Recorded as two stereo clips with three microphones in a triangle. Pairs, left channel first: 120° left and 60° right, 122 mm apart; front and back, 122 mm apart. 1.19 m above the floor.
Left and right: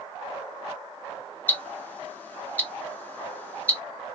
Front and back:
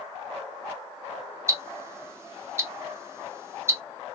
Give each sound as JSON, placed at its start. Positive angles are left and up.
{"t": 1.5, "sound": "ticking", "azimuth_deg": 175, "distance_m": 0.8}